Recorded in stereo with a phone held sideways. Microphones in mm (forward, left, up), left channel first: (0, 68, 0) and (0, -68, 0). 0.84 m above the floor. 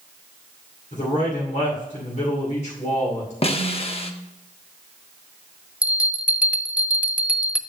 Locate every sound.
0.9 s a man speaking: 60° left (ahead or behind), 2.5 m
3.4 s a snare drum: 45° left (ahead or behind), 0.8 m
5.8 s a bell: 10° right (ahead or behind), 0.7 m